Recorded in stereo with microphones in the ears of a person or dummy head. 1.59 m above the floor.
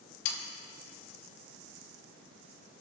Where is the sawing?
65° left (ahead or behind), 1.7 m.